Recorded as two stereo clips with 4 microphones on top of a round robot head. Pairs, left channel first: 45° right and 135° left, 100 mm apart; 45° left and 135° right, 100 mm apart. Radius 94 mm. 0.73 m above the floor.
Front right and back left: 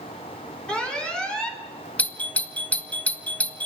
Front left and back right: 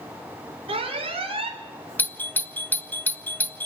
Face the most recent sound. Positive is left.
turn(degrees=5)